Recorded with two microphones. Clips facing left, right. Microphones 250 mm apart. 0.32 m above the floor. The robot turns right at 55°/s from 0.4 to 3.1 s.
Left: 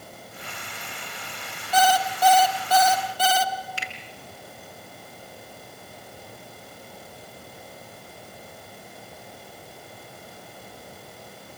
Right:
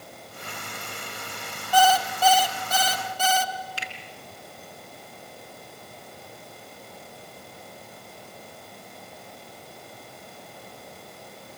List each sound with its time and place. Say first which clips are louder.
1.7 s an alarm clock: right 1 dB; 155° left, 1.6 m; by 3.5 s 130° right, 1.6 m
3.8 s a finger snap: left 1 dB; 40° right (ahead or behind), 4.5 m